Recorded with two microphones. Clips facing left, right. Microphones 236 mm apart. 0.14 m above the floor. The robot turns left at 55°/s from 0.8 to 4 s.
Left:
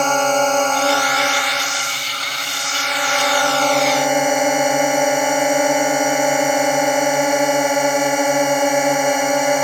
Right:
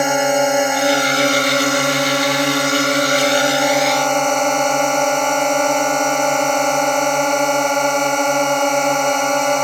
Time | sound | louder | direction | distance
0.0 | a drone | right 2 dB | 10° right | ?